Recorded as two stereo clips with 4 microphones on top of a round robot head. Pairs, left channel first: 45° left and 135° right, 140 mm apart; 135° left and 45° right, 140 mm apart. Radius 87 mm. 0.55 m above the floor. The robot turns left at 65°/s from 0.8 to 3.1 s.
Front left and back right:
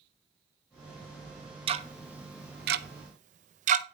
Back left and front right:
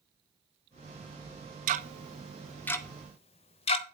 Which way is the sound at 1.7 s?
80° right.